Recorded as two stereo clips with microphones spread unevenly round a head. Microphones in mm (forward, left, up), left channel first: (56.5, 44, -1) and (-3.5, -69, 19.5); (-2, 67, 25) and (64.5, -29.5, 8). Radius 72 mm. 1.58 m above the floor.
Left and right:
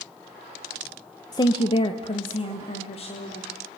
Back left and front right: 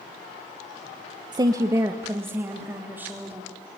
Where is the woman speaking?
Straight ahead, 1.1 m; by 3.5 s 20° left, 4.5 m.